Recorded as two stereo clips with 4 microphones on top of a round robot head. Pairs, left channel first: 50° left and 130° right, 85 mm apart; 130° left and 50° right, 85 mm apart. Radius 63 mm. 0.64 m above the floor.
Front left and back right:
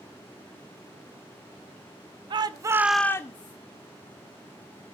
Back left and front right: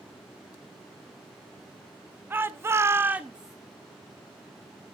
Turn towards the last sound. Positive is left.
turn(degrees=35)